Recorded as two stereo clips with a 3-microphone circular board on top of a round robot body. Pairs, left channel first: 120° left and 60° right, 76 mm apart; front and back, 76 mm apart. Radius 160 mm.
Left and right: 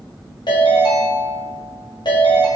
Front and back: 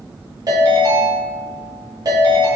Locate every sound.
0.5 s a ringtone: 140° left, 1.5 m